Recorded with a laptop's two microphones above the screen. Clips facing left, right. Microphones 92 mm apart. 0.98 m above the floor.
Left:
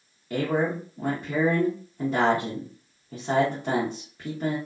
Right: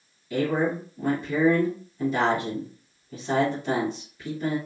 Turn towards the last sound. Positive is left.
turn(degrees=50)  # may be behind; listen again after turning